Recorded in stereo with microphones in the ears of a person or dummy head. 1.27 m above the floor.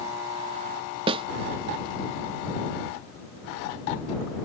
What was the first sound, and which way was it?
A snare drum, 25° right (ahead or behind).